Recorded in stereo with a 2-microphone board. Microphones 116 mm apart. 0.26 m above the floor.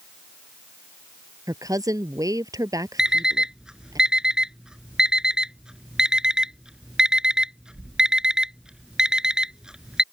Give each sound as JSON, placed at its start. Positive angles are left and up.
{"t": 1.5, "sound": "a woman speaking", "side_deg": -30}
{"t": 3.0, "sound": "an alarm clock", "side_deg": -5}